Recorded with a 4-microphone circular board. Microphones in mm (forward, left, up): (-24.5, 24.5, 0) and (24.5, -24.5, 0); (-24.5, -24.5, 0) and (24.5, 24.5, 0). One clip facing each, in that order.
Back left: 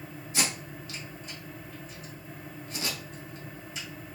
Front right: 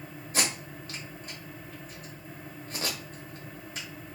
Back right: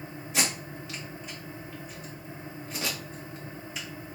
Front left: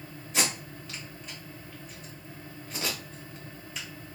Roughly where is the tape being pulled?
Ahead right.